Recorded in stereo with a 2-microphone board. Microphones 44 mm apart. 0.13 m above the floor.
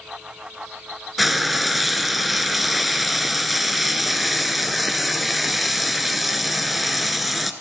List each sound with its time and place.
1.2 s frying: centre (ahead or behind), 0.7 m